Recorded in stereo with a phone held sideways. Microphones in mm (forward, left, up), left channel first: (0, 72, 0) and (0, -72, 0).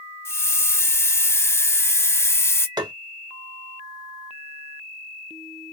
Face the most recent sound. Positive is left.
turn(degrees=-30)  # may be behind; listen again after turning